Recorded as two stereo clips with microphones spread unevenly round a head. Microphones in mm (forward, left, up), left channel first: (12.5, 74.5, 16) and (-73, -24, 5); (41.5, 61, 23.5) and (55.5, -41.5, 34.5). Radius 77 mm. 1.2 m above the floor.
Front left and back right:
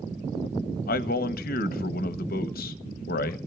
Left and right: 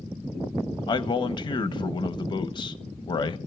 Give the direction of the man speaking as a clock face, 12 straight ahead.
10 o'clock.